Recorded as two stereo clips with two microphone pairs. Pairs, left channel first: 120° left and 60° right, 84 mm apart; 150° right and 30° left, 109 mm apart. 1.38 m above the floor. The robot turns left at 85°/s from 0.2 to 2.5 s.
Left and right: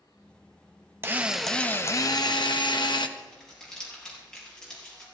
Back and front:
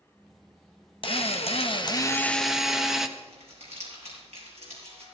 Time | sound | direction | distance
1.0 | a drill | 120° right | 0.9 m
3.2 | crumpling | 35° left | 6.5 m